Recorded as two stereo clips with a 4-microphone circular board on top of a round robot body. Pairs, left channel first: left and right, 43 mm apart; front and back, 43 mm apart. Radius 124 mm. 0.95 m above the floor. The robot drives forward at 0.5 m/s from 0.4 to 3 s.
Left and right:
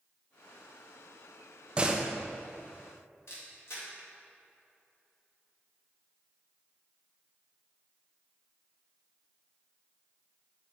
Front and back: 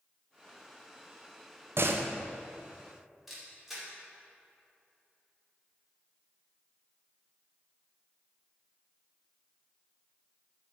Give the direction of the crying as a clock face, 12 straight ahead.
No crying in this recording.